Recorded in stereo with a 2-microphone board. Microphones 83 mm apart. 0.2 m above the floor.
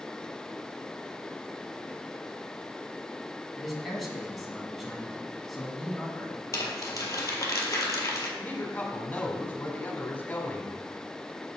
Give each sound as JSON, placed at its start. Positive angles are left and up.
{"t": 3.6, "sound": "a man speaking", "side_deg": 0, "distance_m": 1.6}
{"t": 6.5, "sound": "crumpling", "side_deg": 40, "distance_m": 1.5}
{"t": 8.4, "sound": "a woman speaking", "side_deg": 20, "distance_m": 1.2}